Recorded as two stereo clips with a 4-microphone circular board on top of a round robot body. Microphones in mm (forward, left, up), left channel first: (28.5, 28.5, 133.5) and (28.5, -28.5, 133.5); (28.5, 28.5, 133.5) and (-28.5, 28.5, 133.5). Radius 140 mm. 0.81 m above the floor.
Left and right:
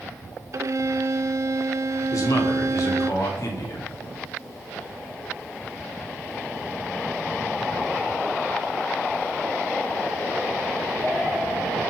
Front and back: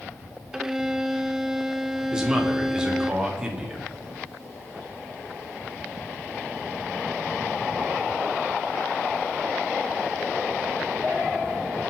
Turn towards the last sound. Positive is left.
turn(degrees=105)